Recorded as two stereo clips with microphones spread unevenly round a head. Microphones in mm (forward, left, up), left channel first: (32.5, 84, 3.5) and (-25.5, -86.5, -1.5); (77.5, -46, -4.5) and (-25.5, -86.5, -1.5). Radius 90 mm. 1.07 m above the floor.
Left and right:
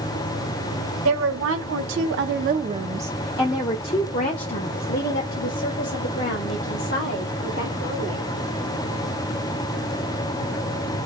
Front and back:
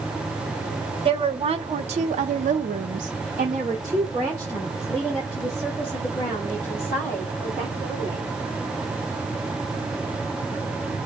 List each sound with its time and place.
1.1 s a woman speaking: 120° right, 1.1 m; by 8.2 s 95° left, 3 m